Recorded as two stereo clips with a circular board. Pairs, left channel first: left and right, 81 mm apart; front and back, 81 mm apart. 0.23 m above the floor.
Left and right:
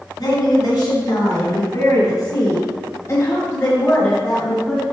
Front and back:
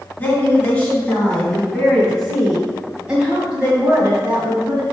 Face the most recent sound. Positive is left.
turn(degrees=155)